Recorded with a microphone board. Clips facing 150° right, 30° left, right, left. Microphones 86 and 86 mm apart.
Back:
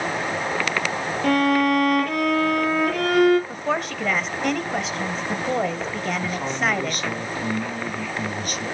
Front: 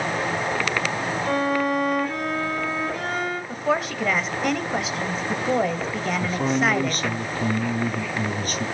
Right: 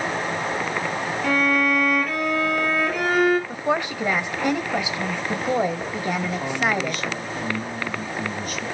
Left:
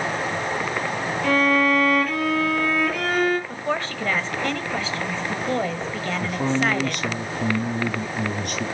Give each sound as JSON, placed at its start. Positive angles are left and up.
{"t": 1.2, "sound": "a violin", "azimuth_deg": -175, "distance_m": 3.5}
{"t": 3.5, "sound": "a woman speaking", "azimuth_deg": -55, "distance_m": 1.0}
{"t": 6.2, "sound": "a man speaking", "azimuth_deg": 80, "distance_m": 4.0}